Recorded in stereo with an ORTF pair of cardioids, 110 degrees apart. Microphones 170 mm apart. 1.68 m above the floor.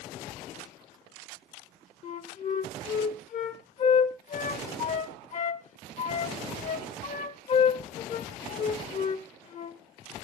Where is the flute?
45° left, 0.9 m.